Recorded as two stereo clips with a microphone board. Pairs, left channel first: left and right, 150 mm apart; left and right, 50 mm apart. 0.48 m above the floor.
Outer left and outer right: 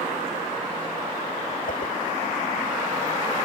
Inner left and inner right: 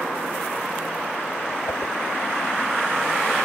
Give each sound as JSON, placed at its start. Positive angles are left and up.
{"t": 1.7, "sound": "a whoosh", "side_deg": 65}